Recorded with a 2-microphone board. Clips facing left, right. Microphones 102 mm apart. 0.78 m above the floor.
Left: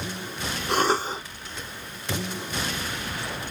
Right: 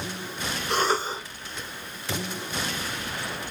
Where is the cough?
45° left (ahead or behind), 1.3 m.